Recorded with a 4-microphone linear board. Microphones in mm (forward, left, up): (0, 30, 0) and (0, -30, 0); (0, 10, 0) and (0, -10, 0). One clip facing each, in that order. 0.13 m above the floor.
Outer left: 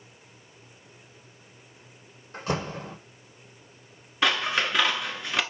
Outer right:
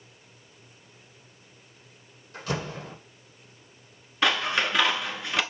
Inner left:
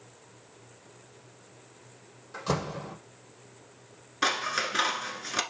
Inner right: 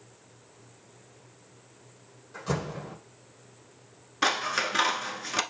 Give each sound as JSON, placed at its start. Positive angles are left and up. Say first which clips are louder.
{"t": 2.3, "sound": "a door slam", "louder": "outer left 2 dB, inner left 1 dB", "side_deg": 30, "distance_m": 4.0}
{"t": 4.2, "sound": "scissors", "louder": "even, inner right 1 dB", "side_deg": 0, "distance_m": 1.0}